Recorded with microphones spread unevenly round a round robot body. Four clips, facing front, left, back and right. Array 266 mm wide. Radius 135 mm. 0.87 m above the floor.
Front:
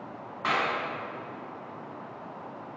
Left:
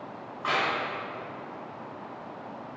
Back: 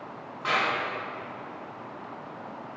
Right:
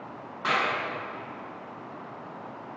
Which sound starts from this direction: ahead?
A clap, at 0.4 s.